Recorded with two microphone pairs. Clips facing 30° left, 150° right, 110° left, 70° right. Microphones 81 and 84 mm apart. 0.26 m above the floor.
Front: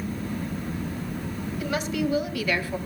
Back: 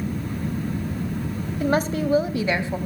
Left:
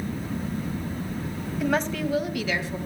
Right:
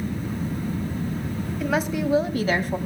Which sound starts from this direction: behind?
A woman speaking, at 1.6 s.